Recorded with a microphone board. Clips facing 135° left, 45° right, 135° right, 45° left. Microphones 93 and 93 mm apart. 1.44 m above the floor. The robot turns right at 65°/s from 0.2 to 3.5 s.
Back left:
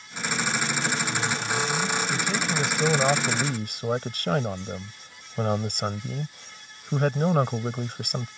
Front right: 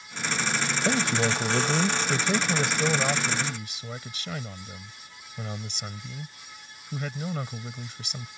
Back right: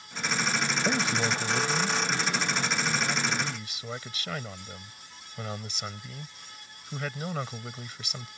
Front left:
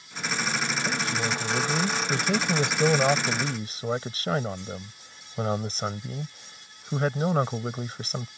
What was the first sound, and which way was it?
A man speaking, 75° right.